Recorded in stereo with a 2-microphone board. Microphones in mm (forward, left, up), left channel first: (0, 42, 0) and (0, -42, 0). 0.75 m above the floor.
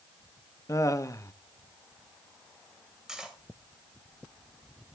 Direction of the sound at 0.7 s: 40° left (ahead or behind).